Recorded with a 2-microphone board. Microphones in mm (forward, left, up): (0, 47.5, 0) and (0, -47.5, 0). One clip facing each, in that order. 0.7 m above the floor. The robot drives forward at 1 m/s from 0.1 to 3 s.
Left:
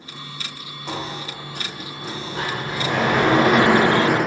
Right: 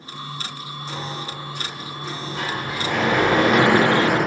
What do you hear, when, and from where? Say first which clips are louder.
0.9 s a sliding door: left 2 dB; 65° left (ahead or behind), 1.0 m; by 4.2 s 25° left (ahead or behind), 2 m